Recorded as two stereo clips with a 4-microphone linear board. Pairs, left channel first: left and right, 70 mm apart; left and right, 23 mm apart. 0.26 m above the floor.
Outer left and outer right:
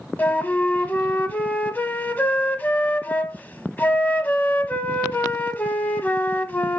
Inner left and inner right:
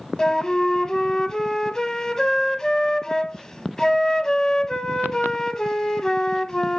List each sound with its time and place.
0.2 s a flute: 25° left (ahead or behind), 0.7 m